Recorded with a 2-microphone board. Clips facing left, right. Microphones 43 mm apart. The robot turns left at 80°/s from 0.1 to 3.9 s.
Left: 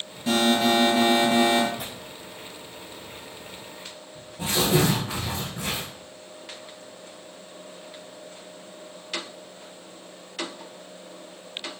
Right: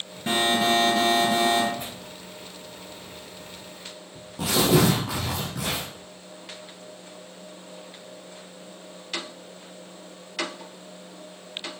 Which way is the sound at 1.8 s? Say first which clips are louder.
Even; 75° left (ahead or behind).